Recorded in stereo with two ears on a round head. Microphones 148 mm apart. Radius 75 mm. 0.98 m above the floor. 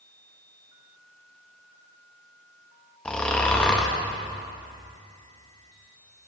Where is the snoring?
5° left (ahead or behind), 0.7 m.